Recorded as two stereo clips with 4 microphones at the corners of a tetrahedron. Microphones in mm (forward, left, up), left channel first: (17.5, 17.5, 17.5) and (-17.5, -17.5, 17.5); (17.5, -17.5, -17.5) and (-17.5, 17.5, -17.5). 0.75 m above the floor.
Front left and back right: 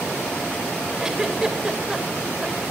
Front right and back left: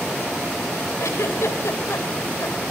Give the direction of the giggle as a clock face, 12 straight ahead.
2 o'clock.